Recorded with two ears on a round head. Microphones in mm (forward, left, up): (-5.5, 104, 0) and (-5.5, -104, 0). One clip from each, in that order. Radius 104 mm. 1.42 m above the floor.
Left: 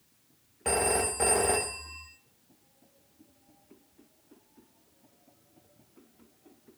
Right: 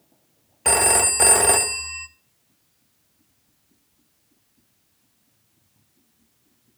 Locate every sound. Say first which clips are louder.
0.7 s a phone ringing: right 8 dB; 45° right (ahead or behind), 0.7 m